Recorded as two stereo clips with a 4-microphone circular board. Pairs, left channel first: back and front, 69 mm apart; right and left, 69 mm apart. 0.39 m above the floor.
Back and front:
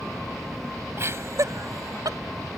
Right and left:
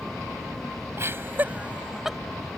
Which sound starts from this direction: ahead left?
Laughter, at 1.0 s.